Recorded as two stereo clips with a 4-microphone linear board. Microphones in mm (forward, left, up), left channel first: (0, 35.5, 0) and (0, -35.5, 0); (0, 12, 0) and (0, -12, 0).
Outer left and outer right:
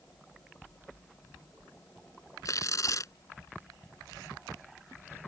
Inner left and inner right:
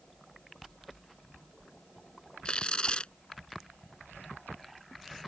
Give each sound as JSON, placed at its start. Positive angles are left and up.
{"t": 2.5, "sound": "tearing paper", "side_deg": 50}